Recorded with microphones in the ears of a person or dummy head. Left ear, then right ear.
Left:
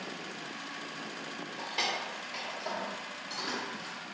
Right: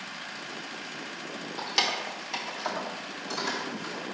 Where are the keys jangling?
45° right (ahead or behind), 0.8 m; by 4.0 s 30° right (ahead or behind), 1.4 m.